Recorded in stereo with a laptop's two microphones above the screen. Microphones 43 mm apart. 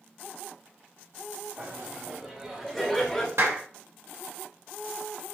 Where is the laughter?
35° right (ahead or behind), 2.5 m; by 3.3 s 25° left (ahead or behind), 2 m.